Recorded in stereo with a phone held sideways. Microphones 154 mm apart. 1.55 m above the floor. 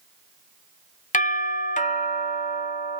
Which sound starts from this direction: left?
A doorbell, at 1.1 s.